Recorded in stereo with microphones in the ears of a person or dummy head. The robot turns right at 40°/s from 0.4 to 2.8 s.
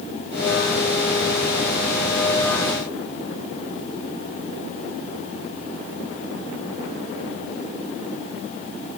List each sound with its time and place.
Only background noise.